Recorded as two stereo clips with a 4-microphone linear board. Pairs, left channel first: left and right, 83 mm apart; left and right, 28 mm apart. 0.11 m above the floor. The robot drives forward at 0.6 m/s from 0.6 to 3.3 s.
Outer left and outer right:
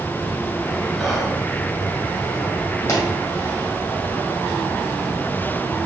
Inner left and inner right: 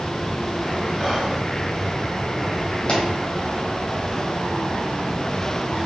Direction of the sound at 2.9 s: 35° left (ahead or behind).